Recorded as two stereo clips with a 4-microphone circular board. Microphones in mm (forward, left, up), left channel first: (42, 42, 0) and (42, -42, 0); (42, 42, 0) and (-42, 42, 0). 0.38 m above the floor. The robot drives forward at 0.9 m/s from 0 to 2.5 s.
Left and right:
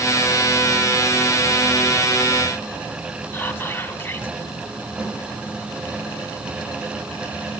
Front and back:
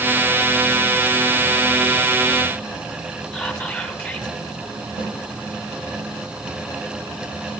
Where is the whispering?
70° left, 1.3 m.